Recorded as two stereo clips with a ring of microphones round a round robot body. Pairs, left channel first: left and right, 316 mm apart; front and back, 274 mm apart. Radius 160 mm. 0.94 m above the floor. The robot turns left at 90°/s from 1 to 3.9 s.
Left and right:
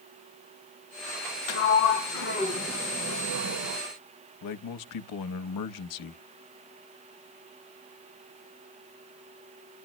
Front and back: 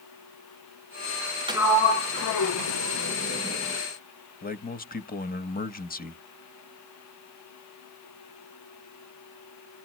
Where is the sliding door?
105° left, 0.8 m; by 3.8 s 105° right, 0.8 m.